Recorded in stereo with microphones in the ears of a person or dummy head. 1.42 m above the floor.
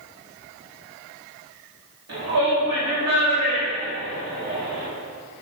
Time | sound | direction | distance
2.1 | a shout | 85° right | 2.5 m